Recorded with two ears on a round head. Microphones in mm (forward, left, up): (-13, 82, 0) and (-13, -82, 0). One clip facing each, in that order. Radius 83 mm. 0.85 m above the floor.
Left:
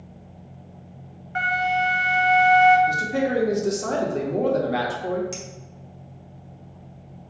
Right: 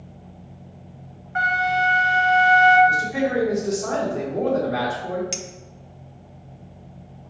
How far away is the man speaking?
About 1.2 m.